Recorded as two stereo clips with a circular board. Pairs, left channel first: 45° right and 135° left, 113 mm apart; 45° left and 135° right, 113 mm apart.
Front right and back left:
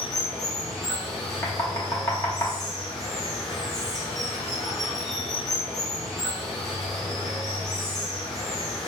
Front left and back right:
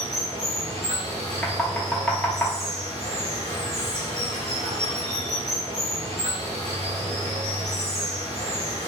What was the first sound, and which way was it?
Running water, 130° right.